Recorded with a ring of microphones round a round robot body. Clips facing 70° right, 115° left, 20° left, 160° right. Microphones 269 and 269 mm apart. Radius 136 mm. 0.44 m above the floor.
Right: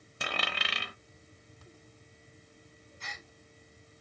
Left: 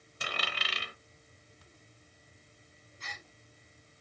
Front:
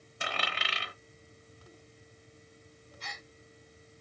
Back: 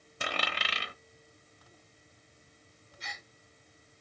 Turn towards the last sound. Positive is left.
turn(degrees=-85)